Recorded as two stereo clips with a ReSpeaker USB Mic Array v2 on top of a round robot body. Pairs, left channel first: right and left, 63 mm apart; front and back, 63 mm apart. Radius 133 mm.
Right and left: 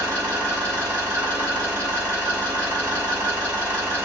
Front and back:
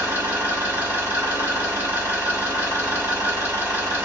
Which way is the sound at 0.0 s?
125° left.